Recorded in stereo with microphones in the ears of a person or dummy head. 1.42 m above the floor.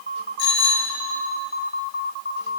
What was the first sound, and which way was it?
A bicycle bell, 65° left (ahead or behind).